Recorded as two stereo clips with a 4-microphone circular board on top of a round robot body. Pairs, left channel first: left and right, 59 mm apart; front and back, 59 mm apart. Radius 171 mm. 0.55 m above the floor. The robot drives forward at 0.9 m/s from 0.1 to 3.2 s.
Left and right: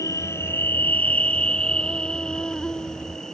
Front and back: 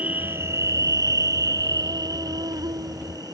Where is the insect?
115° left; by 3.4 s 170° left.